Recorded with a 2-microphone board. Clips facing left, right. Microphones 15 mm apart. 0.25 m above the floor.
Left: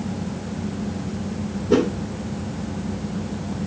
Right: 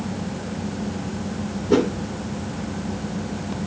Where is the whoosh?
10° right (ahead or behind), 4.5 m.